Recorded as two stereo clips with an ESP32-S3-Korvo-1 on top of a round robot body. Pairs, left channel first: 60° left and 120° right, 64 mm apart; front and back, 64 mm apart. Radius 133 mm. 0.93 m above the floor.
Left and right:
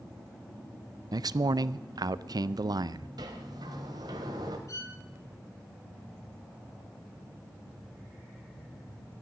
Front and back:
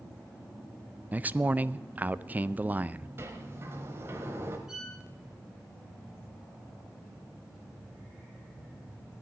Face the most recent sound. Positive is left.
turn(degrees=100)